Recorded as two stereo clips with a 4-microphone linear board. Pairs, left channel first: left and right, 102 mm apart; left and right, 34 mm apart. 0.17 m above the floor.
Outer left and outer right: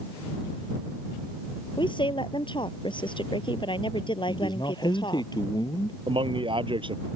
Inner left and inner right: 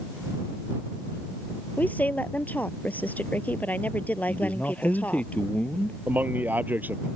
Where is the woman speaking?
50° left (ahead or behind).